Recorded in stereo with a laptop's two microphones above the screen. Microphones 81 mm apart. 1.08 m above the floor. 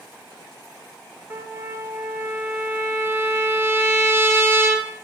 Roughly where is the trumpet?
Right.